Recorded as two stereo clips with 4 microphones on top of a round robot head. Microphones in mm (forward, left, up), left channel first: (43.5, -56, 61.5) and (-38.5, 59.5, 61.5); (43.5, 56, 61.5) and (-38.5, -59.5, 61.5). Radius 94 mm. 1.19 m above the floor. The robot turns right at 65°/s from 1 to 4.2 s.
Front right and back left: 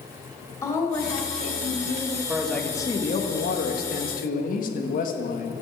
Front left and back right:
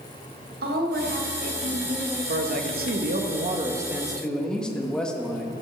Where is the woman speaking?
125° right, 2.5 m; by 2.2 s 50° right, 2.5 m.